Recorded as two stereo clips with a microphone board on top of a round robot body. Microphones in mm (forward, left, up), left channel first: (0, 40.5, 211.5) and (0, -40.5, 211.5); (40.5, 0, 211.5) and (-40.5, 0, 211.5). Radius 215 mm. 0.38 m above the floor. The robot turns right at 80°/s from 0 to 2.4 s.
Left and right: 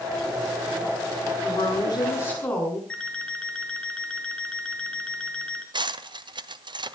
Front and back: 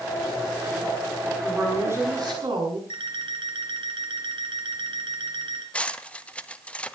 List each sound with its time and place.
1.4 s a woman speaking: 85° left, 8.5 m; by 2.8 s 160° left, 8.5 m
2.9 s an alarm clock: 170° left, 4 m
5.7 s cutlery clinking: 75° right, 1.2 m